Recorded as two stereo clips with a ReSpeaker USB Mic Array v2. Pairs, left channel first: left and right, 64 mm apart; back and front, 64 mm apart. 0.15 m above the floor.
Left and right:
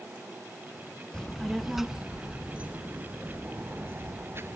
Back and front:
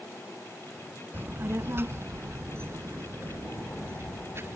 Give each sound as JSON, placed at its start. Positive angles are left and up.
{"t": 1.1, "sound": "a child speaking", "azimuth_deg": 20, "distance_m": 1.2}